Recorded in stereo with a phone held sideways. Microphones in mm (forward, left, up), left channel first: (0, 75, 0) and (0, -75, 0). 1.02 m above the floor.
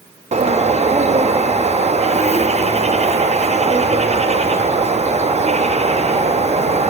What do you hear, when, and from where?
0.3 s a bird: 45° right (ahead or behind), 0.5 m